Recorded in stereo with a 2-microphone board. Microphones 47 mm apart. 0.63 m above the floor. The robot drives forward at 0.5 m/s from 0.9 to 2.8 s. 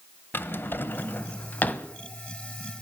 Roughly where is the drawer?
Left.